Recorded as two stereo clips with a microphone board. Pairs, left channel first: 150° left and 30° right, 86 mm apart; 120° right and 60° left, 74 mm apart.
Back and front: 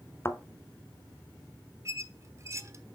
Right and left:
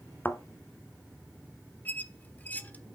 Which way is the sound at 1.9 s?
65° right.